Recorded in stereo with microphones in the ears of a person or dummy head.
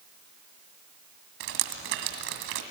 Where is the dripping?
60° right (ahead or behind), 2 m.